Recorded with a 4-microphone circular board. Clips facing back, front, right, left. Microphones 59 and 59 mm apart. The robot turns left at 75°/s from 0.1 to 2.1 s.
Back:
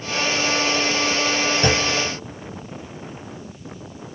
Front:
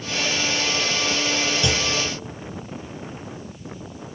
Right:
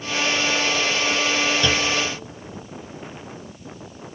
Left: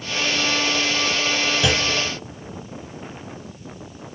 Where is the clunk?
170° left, 1.0 m; by 1.9 s 150° left, 1.0 m.